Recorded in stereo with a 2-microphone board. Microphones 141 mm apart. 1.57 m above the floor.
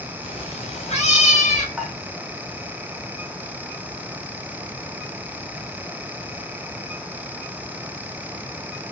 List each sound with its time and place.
0.2 s a cat meowing: 40° left (ahead or behind), 3.5 m; by 1.7 s 55° left (ahead or behind), 3.5 m
1.8 s dishes clattering: centre (ahead or behind), 4 m